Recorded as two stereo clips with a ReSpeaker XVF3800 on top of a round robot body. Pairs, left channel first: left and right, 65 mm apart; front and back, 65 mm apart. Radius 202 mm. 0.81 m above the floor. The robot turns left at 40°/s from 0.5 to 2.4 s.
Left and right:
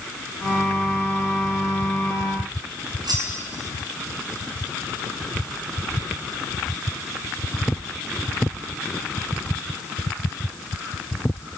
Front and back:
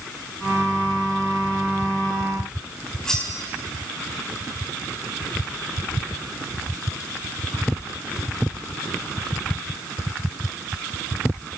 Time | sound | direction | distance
3.0 | cutlery clinking | 80° right | 6.5 m